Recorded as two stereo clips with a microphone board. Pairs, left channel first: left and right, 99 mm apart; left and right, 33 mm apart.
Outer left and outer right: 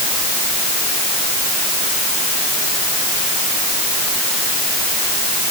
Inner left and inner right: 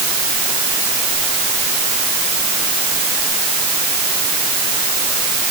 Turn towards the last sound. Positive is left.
No sound to turn to.